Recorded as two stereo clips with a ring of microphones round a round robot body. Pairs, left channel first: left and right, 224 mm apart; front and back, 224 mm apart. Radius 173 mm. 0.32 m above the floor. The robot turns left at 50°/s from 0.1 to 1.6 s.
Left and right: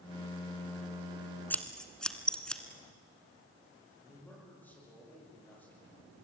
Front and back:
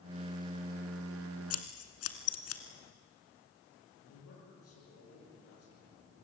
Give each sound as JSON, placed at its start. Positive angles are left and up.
{"t": 1.5, "sound": "scissors", "azimuth_deg": 10, "distance_m": 2.0}
{"t": 4.0, "sound": "a man speaking", "azimuth_deg": 10, "distance_m": 10.0}